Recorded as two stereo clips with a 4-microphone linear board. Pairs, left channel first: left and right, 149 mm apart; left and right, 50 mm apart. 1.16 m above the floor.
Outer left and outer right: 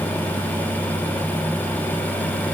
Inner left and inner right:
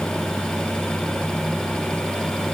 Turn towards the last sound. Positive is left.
No sound to turn to.